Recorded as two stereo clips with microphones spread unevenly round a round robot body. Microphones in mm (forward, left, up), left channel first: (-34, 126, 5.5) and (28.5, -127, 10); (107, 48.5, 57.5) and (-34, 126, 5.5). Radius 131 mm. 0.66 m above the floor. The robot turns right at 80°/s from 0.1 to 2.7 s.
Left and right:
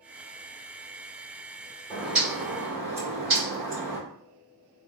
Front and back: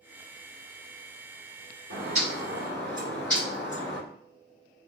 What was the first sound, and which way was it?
A bird, 175° left.